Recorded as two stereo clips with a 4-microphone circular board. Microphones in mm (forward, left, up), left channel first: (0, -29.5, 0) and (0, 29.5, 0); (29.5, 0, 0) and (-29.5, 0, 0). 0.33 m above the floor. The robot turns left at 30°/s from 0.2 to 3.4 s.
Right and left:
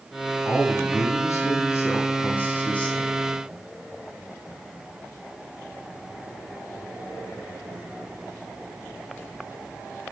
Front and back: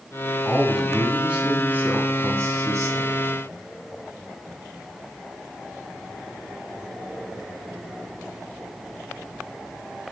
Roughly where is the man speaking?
Right.